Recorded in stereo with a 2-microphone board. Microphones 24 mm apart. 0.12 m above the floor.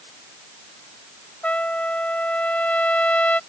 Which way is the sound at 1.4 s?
75° left (ahead or behind).